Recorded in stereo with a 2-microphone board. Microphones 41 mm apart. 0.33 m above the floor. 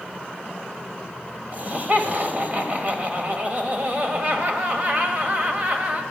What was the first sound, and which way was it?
Laughter, 40° right (ahead or behind).